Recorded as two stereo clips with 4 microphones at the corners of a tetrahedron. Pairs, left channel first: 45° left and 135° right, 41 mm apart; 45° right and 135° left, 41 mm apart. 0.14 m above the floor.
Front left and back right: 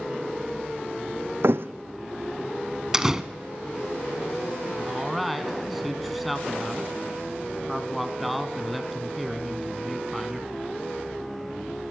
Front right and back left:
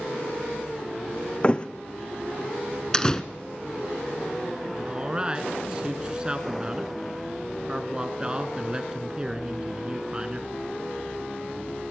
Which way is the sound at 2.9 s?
80° right.